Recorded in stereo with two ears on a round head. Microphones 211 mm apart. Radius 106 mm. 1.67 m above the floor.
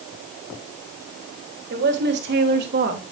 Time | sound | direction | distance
1.7 | a woman speaking | 50° right (ahead or behind) | 3.5 m